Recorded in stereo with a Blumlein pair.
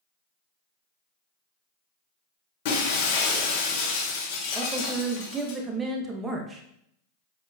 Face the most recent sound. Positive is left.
turn(degrees=-15)